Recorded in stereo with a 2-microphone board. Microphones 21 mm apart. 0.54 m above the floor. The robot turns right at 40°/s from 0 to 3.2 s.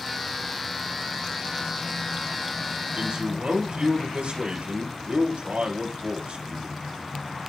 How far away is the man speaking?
About 3.5 m.